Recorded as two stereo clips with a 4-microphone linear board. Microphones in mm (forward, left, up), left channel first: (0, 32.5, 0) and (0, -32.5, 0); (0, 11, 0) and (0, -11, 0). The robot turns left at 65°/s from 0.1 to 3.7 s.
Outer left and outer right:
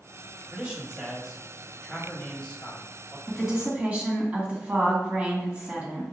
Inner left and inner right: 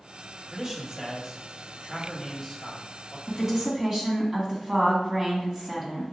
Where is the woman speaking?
Centre (ahead or behind), 1.8 m; by 6.0 s 20° right (ahead or behind), 1.8 m.